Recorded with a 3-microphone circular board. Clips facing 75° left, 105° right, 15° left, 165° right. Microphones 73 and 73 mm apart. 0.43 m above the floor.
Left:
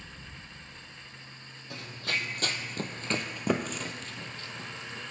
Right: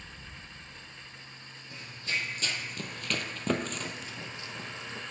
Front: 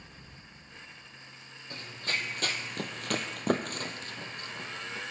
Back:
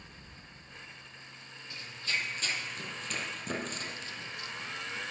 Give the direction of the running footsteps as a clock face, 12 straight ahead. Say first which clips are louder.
Left 2 dB, front 1 dB; 10 o'clock.